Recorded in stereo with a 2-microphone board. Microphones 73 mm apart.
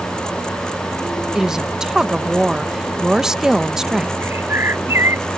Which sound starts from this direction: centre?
A woman speaking, at 1.4 s.